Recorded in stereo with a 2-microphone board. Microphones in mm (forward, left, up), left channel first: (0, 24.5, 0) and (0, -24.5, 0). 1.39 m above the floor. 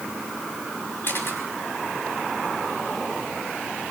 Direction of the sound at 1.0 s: 50° left (ahead or behind).